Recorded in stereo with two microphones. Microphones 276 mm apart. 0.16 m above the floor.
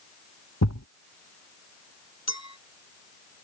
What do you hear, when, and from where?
0.6 s a thud: 70° left (ahead or behind)
2.3 s a clink: 70° left (ahead or behind)